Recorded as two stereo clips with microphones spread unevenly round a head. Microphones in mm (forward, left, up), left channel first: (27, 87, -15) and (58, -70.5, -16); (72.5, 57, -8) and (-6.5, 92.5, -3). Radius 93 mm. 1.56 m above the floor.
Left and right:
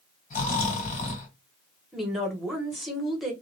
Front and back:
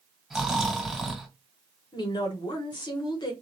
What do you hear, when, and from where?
0.3 s snoring: 70° left, 1.9 m
1.9 s a woman speaking: 10° left, 1.4 m